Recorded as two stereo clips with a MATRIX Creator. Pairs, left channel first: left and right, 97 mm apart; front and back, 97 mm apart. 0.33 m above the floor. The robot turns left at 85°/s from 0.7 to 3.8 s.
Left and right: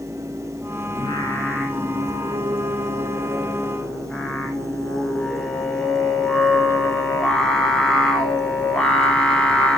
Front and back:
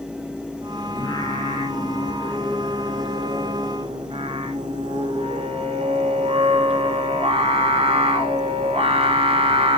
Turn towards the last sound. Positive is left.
turn(degrees=175)